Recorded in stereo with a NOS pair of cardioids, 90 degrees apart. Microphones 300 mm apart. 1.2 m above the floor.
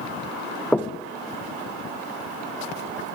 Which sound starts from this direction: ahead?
Knocking, at 0.7 s.